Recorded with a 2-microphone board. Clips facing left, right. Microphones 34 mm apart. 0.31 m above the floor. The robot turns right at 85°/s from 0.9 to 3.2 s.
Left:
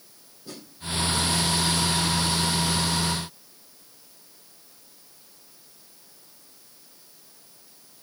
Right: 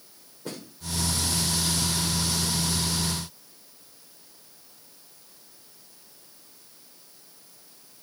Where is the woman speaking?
I don't hear a woman speaking.